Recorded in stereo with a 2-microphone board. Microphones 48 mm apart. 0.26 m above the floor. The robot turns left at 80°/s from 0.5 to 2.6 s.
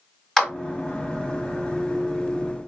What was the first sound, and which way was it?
A clap, 5° left (ahead or behind).